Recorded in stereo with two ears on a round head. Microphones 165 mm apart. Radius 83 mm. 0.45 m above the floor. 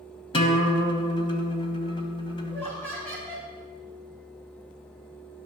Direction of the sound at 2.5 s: 10° left (ahead or behind).